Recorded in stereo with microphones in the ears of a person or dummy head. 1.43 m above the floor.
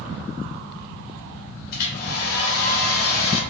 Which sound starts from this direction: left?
A hair dryer, at 1.7 s.